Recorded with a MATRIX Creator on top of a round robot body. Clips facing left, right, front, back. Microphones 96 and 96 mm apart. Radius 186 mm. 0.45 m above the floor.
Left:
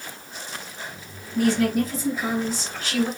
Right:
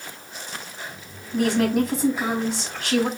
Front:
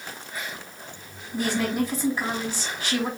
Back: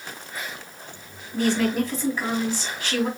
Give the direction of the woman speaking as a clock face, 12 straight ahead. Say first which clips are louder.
Even, back 3 dB; 3 o'clock.